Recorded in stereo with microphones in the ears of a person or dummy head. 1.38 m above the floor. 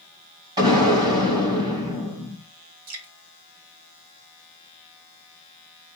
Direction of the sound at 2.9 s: 80° right.